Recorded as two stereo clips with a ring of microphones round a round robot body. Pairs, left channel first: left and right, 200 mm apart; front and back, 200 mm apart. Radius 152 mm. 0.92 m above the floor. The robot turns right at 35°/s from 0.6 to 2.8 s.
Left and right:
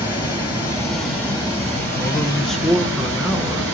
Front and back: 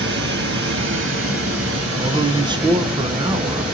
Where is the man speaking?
160° left, 0.5 m; by 3.6 s 170° right, 0.5 m.